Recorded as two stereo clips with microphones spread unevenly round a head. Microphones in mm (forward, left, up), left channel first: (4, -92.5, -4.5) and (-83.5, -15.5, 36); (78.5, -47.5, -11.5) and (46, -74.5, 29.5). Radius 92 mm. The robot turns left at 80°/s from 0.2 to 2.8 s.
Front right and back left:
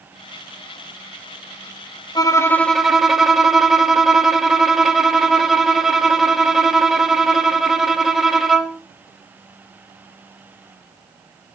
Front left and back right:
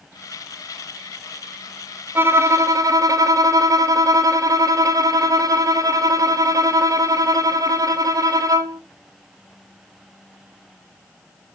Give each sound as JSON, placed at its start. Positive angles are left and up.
{"t": 2.1, "sound": "a violin", "azimuth_deg": -65, "distance_m": 1.1}